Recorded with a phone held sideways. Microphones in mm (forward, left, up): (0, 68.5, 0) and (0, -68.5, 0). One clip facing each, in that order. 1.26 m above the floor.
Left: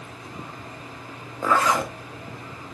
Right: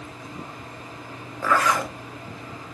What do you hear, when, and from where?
1.4 s a zipper: 20° left (ahead or behind), 0.7 m